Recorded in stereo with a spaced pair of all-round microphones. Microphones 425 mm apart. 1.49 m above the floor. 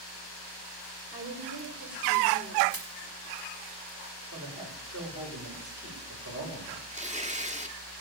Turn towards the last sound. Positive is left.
turn(degrees=-15)  # may be behind; listen again after turning